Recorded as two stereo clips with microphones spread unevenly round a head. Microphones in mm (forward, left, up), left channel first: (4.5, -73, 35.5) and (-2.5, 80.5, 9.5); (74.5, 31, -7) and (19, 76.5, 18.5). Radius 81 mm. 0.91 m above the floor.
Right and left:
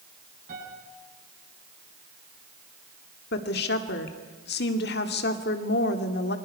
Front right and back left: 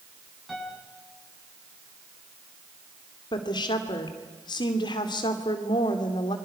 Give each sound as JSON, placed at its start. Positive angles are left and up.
{"t": 0.5, "sound": "a piano", "azimuth_deg": 55, "distance_m": 7.0}
{"t": 3.3, "sound": "a woman speaking", "azimuth_deg": -65, "distance_m": 2.0}